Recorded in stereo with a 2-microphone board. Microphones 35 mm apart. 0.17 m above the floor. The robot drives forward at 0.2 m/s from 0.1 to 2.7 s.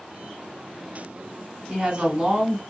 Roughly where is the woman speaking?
Right.